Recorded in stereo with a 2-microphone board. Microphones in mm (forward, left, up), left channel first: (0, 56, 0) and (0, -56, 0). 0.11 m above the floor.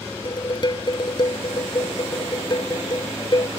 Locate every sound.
0.2 s dishes clattering: 45° left (ahead or behind)